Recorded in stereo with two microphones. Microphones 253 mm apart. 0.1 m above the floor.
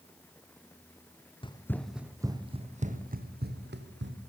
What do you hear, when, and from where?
1.4 s running footsteps: 20° left (ahead or behind), 1.4 m; by 4.2 s 45° right (ahead or behind), 3.5 m